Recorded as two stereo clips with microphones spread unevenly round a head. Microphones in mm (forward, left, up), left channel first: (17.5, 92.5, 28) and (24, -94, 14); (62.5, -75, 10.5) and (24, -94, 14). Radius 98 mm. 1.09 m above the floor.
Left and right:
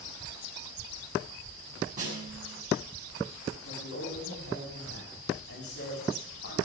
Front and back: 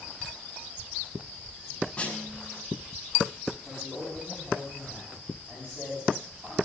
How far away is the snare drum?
About 6 m.